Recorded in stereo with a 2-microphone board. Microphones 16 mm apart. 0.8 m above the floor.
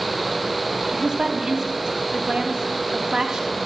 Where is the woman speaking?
50° right (ahead or behind), 1.4 m.